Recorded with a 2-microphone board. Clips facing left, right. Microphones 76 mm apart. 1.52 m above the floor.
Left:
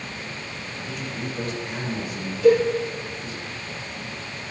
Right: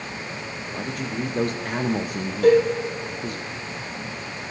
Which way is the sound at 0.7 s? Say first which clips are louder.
Right 5 dB; 50° right (ahead or behind).